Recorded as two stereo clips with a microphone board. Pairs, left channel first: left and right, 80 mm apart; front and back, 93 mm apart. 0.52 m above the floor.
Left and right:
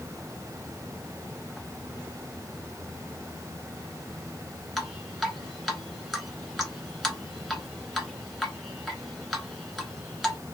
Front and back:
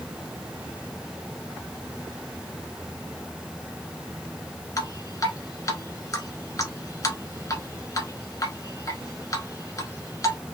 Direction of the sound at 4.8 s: 5° left.